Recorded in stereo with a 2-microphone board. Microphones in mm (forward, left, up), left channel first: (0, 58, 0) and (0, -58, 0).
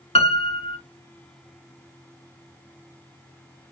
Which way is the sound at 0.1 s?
60° left (ahead or behind).